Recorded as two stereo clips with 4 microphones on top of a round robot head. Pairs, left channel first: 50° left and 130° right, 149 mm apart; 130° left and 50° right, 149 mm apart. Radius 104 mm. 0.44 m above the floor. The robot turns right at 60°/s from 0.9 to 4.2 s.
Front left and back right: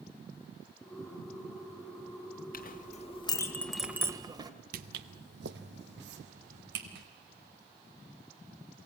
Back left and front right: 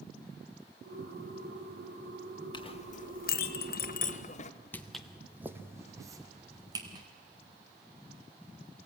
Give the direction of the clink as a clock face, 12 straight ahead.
10 o'clock.